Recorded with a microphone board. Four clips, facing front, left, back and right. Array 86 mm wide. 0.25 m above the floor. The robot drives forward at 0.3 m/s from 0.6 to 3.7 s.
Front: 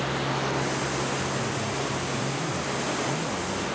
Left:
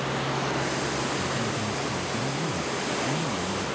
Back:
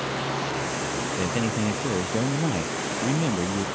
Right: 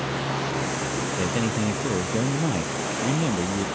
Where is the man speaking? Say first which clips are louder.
Right 4 dB, back 3 dB; 135° right; by 3.6 s 140° right.